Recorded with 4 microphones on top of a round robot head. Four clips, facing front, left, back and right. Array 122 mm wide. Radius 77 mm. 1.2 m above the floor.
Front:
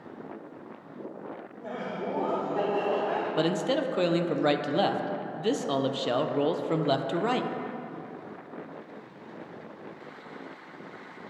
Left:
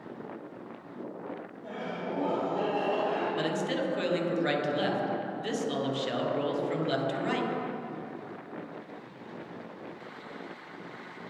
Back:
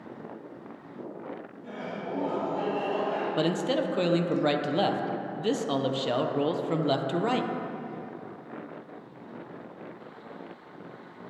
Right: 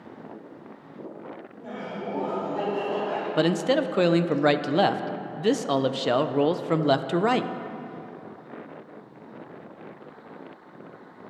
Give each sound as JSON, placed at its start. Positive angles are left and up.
{"t": 1.6, "sound": "laughter", "azimuth_deg": -35, "distance_m": 4.0}
{"t": 3.4, "sound": "a man speaking", "azimuth_deg": -90, "distance_m": 0.7}